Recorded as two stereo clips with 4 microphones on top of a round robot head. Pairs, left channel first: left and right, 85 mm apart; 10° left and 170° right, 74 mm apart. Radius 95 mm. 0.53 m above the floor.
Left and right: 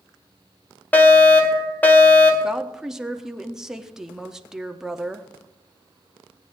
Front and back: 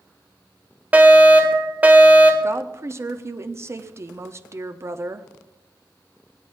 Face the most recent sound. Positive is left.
turn(degrees=-170)